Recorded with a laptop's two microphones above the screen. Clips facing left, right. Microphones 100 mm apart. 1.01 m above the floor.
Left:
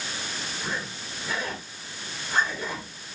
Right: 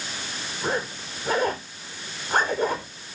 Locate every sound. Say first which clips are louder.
0.6 s a zipper: right 9 dB; 55° right (ahead or behind), 4 m